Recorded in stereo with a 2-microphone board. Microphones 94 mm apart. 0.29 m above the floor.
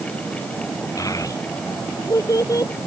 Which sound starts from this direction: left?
A child speaking, at 1.0 s.